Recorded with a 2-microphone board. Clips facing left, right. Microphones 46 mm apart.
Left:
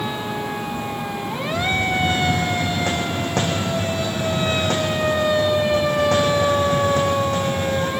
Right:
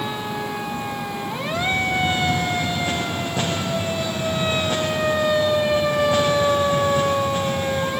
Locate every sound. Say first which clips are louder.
1.5 s a hiss: left 1 dB; 80° left, 6 m